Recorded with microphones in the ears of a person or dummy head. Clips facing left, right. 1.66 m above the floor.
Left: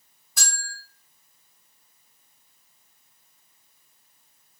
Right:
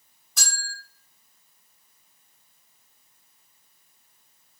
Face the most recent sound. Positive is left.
turn(degrees=10)  # may be behind; listen again after turning